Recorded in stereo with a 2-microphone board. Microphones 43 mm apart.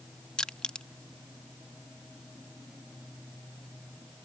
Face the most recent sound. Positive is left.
turn(degrees=20)  # may be behind; listen again after turning